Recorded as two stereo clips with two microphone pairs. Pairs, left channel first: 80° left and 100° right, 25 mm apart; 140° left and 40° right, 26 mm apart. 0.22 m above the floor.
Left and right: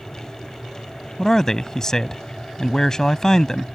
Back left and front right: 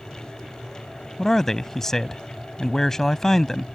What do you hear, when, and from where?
1.2 s a man speaking: 105° left